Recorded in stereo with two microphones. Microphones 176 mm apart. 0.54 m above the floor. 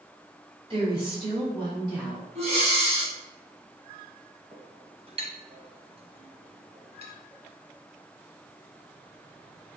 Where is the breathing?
40° right (ahead or behind), 2.5 m.